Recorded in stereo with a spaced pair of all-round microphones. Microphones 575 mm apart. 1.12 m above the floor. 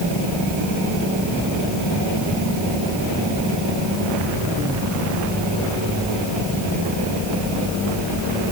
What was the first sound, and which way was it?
Only background noise.